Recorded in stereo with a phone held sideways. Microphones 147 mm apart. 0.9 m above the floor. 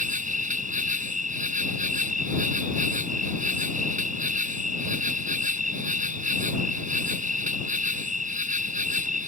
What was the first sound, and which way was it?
An insect, 60° right (ahead or behind).